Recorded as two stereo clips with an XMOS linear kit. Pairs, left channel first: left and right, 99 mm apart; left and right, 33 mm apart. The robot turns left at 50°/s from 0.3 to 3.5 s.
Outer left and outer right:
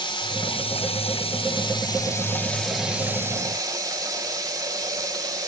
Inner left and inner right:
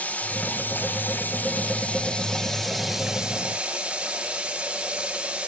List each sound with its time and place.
0.0 s running water: 120° left, 4 m; by 5.5 s 40° right, 4 m